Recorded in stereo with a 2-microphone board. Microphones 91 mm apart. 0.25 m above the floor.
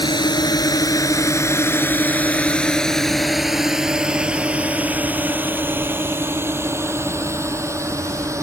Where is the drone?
55° left (ahead or behind); by 8.4 s 35° right (ahead or behind).